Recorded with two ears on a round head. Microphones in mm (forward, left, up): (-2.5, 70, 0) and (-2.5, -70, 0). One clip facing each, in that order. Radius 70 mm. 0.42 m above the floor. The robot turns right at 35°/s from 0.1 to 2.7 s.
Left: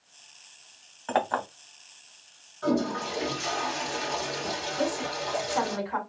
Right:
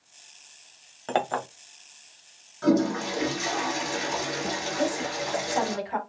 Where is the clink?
35° right (ahead or behind), 1.1 m; by 1.5 s 25° right (ahead or behind), 1.1 m.